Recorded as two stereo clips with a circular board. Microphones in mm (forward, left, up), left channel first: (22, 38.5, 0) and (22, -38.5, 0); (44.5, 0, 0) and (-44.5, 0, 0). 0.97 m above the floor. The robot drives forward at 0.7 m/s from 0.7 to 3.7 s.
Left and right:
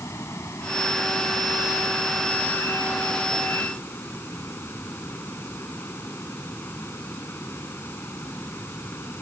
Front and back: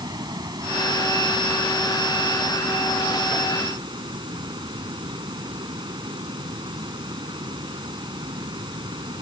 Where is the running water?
140° left; by 9.2 s 150° left.